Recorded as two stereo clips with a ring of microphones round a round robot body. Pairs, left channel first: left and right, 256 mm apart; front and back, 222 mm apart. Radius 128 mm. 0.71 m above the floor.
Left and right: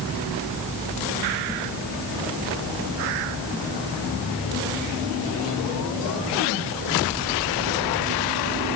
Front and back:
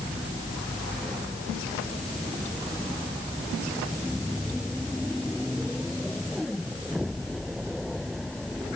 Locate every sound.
Only background noise.